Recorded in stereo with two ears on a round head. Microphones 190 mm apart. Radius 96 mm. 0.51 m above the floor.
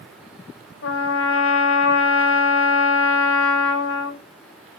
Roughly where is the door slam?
No door slam in this recording.